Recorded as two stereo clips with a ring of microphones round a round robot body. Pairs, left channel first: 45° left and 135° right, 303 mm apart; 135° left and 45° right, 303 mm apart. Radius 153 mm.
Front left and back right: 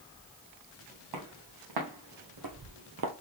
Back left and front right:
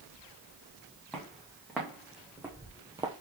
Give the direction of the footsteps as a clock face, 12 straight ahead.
4 o'clock.